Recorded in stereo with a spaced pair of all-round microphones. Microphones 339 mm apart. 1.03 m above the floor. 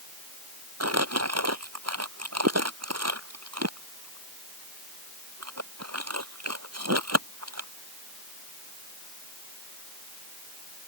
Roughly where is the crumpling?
Right.